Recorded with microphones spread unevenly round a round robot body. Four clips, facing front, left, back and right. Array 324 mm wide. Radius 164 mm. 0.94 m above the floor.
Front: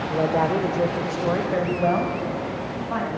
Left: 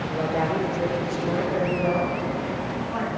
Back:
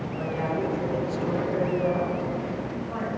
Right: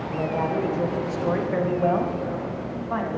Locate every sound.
0.1 s a man speaking: straight ahead, 1.3 m; by 3.2 s 55° right, 2 m